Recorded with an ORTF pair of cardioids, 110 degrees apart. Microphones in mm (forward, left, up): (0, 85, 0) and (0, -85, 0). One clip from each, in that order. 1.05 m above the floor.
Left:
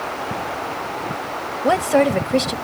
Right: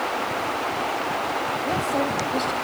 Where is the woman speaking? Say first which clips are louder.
Left 12 dB; 65° left, 1.2 m.